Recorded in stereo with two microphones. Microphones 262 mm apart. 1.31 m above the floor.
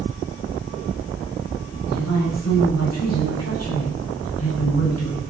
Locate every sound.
1.9 s a woman speaking: 75° left (ahead or behind), 6.5 m; by 5.2 s 65° left (ahead or behind), 7.5 m